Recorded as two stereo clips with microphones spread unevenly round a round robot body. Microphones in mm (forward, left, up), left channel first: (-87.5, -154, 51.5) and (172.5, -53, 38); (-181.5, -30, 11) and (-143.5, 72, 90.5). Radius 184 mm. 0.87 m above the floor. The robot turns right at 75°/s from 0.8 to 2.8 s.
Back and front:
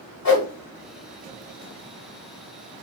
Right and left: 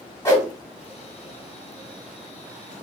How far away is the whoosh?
About 1.4 m.